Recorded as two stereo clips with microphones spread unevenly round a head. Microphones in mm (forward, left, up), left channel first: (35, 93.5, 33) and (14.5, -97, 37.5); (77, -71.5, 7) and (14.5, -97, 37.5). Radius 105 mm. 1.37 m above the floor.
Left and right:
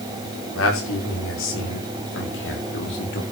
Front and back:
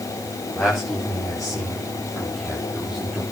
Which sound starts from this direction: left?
A man speaking, at 0.6 s.